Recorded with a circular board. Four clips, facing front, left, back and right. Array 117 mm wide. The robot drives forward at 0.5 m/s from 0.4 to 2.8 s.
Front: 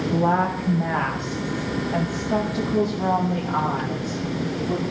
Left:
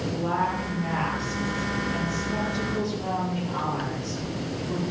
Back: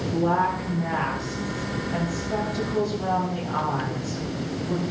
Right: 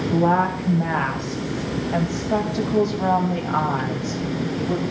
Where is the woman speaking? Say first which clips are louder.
Right 8 dB, front 1 dB; 60° right, 4 m; by 4.8 s 80° right, 3.5 m.